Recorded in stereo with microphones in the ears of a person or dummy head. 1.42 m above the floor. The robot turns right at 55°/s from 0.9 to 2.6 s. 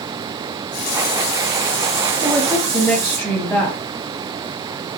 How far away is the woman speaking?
About 0.9 m.